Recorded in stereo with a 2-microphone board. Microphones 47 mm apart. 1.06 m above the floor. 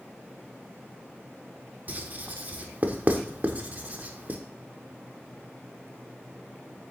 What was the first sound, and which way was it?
Writing, 35° right (ahead or behind).